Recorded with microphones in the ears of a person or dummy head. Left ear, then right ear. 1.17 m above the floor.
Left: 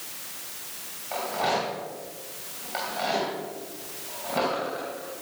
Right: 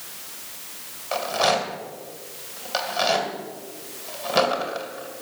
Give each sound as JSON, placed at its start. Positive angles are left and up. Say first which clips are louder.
{"t": 1.1, "sound": "a rattle", "louder": "right 5 dB", "side_deg": -65, "distance_m": 2.5}